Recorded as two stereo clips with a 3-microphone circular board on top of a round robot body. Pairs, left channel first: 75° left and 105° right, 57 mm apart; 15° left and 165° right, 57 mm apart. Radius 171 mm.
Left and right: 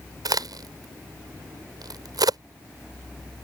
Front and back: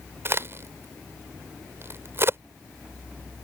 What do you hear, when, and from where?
0.2 s a crack: 115° right